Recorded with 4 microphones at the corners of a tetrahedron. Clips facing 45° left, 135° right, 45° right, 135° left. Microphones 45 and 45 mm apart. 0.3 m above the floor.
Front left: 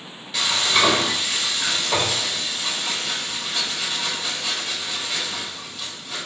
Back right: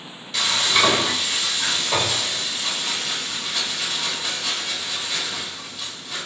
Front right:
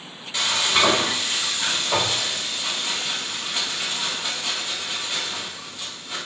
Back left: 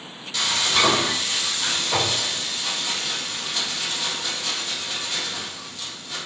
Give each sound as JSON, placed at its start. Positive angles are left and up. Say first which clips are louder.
{"t": 0.3, "sound": "frying", "louder": "even, front right 1 dB", "azimuth_deg": -30, "distance_m": 1.4}